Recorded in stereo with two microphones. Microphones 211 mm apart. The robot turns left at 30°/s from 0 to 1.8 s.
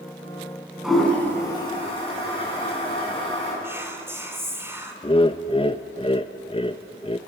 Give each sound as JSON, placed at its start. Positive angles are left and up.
{"t": 0.8, "sound": "a toilet flushing", "side_deg": -5, "distance_m": 8.0}
{"t": 3.6, "sound": "whispering", "side_deg": -10, "distance_m": 3.5}
{"t": 5.0, "sound": "laughter", "side_deg": 25, "distance_m": 0.6}